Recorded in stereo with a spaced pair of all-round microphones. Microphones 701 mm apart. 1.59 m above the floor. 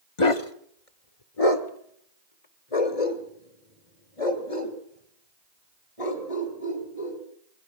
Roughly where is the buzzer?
No buzzer in this recording.